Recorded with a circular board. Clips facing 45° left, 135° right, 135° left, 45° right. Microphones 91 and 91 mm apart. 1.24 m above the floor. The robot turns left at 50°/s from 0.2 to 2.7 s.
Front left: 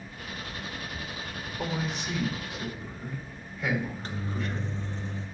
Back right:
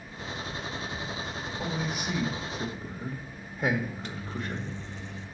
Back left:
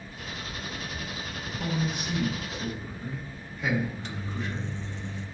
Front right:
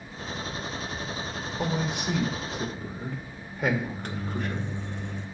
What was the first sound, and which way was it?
A man speaking, 30° right.